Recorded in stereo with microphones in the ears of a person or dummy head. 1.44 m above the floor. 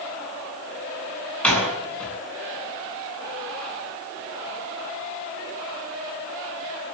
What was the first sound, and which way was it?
A door slam, 10° left (ahead or behind).